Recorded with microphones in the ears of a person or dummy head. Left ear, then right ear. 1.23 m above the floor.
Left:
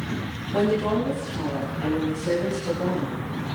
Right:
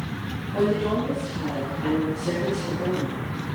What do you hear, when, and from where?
0.5 s a woman speaking: 55° left (ahead or behind), 7 m; by 3.2 s 50° left (ahead or behind), 9.5 m